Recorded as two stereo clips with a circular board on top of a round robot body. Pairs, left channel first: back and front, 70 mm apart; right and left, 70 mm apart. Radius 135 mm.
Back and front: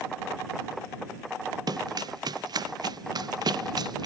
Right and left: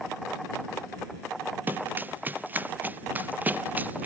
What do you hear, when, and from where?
1.7 s running footsteps: 25° left